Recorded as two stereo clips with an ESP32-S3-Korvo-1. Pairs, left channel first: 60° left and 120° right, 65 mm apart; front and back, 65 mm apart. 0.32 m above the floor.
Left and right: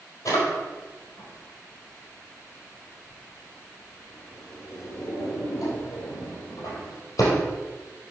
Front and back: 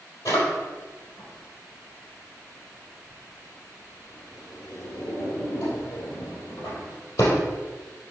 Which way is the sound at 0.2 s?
20° left.